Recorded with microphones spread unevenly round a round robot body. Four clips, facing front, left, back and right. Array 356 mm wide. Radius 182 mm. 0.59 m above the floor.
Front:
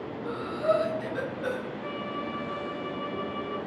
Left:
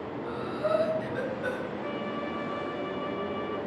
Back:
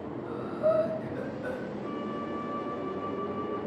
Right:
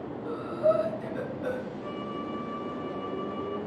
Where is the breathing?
15° left, 7.5 m.